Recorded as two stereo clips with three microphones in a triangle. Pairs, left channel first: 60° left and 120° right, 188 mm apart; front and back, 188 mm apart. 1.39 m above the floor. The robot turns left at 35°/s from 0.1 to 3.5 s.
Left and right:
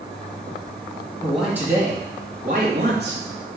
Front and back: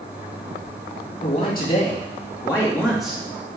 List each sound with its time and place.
1.2 s a man speaking: 25° right, 2.5 m; by 3.2 s 95° right, 2.5 m